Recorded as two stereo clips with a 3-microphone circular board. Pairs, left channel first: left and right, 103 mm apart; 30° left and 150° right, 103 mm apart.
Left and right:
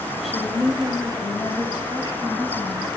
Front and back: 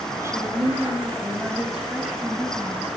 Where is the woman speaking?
170° right, 1.0 m; by 2.9 s 115° left, 2 m.